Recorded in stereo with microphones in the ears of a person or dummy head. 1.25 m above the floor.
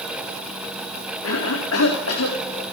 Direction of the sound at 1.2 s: 80° left.